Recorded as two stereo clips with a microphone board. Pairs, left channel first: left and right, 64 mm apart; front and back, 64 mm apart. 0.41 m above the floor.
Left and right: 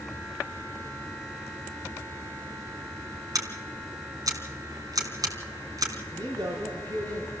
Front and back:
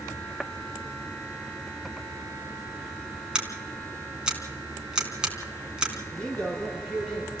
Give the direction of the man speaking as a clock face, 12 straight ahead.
2 o'clock.